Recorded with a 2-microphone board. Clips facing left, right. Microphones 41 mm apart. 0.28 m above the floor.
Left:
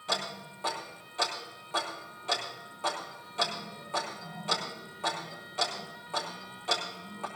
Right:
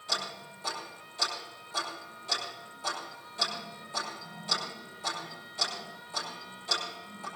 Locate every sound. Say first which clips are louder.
0.1 s ticking: left 2 dB; 45° left (ahead or behind), 5.5 m